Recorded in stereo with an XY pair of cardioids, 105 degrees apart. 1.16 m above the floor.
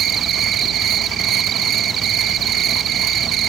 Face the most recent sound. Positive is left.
turn(degrees=-65)